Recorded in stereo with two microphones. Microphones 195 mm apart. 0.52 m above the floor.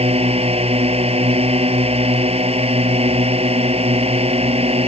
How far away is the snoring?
No snoring in this recording.